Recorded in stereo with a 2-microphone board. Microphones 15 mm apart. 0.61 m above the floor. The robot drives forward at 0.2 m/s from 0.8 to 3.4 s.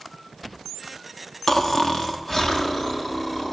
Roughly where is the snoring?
Left.